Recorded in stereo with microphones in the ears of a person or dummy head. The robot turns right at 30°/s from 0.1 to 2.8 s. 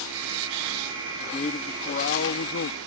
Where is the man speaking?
25° left; by 2.8 s 70° left.